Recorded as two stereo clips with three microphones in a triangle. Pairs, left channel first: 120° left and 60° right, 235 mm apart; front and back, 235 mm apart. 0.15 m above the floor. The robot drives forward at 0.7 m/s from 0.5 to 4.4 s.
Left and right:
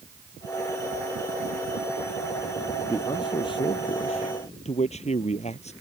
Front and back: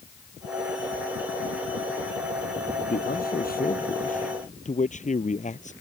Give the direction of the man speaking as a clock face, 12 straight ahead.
10 o'clock.